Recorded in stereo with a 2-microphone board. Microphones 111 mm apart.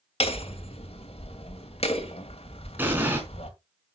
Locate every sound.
0.2 s hammering: 70° left (ahead or behind), 2.5 m
2.8 s an explosion: 20° right (ahead or behind), 4.5 m